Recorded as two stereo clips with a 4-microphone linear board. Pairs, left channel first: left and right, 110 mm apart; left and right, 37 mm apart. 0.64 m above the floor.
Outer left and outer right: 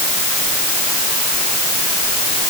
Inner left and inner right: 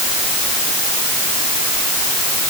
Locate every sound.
Only background noise.